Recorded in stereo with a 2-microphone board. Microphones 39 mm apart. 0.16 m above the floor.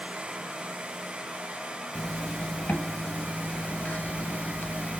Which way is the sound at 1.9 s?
50° left (ahead or behind).